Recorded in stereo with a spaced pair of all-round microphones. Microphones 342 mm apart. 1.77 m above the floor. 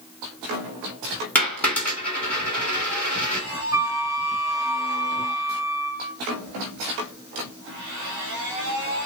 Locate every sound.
1.4 s a dropped coin: 5° left (ahead or behind), 3 m
3.7 s a flute: 10° right (ahead or behind), 0.5 m